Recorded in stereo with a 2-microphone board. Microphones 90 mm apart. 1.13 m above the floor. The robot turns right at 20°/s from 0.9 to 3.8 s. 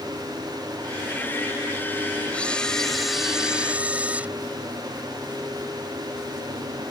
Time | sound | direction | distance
2.3 | a camera shutter | 15° left (ahead or behind) | ?